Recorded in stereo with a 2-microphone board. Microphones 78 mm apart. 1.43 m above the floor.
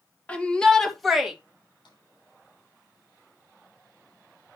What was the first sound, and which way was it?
A shout, 15° left (ahead or behind).